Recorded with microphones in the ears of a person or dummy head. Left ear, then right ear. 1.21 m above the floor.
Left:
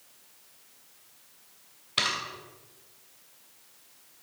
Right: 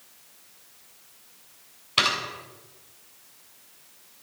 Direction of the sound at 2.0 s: Centre (ahead or behind).